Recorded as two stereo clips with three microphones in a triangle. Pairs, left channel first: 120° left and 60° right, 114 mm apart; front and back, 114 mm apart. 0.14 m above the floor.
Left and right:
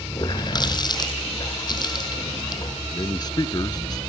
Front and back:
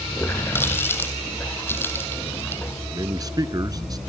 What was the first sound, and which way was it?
A running tap, 70° left.